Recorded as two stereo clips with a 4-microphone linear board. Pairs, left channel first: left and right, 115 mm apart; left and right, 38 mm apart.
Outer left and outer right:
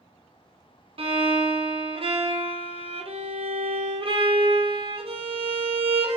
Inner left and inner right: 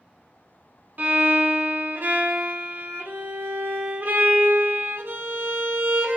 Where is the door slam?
I don't hear a door slam.